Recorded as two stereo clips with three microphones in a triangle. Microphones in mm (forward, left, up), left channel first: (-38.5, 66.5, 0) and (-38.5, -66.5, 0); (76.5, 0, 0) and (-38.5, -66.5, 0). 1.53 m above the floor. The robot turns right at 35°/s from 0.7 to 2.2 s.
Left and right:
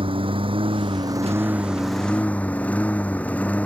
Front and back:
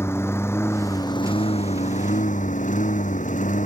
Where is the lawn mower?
40° right; by 3.7 s 10° left.